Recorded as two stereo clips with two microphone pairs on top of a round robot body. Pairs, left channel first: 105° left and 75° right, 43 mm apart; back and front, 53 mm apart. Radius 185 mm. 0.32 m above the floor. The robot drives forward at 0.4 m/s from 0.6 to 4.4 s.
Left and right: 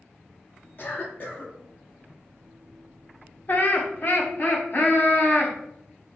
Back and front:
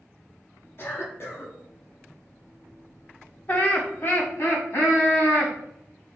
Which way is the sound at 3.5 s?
125° left.